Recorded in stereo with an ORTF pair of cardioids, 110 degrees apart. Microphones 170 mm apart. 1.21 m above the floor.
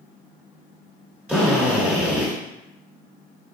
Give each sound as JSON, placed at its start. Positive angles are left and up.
{"t": 1.3, "sound": "a drill", "azimuth_deg": -5, "distance_m": 1.5}